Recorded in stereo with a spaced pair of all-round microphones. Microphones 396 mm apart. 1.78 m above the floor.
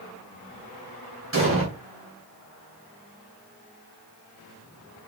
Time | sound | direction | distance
1.3 | an explosion | 30° right (ahead or behind) | 2 m